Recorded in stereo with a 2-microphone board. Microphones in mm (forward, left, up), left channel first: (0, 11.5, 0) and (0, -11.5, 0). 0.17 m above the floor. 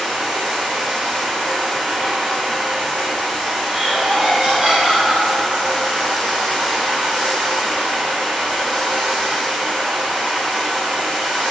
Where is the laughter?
40° right (ahead or behind), 3.5 m.